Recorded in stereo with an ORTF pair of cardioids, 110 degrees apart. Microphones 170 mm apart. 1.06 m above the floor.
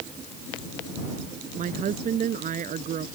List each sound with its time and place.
1.6 s a woman speaking: 50° right